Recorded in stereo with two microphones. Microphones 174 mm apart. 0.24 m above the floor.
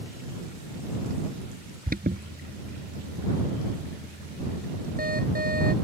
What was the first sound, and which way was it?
An alarm, 60° right (ahead or behind).